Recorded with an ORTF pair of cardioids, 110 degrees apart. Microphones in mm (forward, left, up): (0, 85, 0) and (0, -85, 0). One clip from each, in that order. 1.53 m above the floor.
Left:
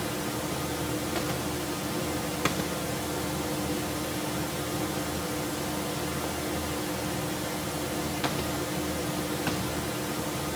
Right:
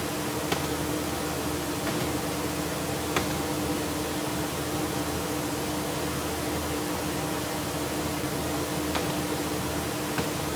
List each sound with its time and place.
0.0 s a fan: 20° right, 1.5 m